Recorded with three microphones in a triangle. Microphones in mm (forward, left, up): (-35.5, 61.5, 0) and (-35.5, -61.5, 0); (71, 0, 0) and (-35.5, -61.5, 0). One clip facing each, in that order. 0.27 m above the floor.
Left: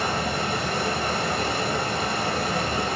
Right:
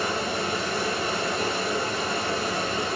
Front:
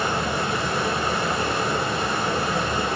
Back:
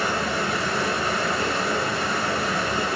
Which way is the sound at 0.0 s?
95° left.